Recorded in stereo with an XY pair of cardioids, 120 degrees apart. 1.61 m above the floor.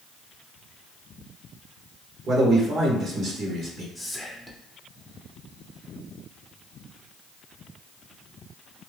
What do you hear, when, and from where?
2.3 s a man speaking: 50° right, 1.1 m
4.0 s whispering: 10° left, 0.9 m